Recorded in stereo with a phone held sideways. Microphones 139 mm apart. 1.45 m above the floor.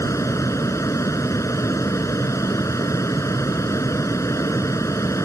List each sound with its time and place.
0.0 s a fan: 20° left (ahead or behind)